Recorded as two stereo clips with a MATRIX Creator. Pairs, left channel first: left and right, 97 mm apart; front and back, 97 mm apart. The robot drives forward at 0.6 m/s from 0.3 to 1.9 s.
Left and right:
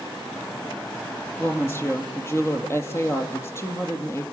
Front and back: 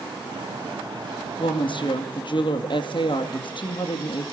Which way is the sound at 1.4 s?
25° left.